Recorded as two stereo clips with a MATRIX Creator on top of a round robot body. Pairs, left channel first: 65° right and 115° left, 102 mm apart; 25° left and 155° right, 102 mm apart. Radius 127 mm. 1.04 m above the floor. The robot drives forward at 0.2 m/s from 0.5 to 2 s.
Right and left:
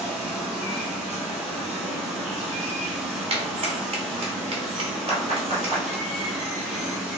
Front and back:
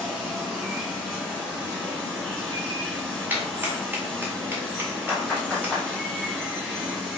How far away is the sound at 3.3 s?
About 1.1 m.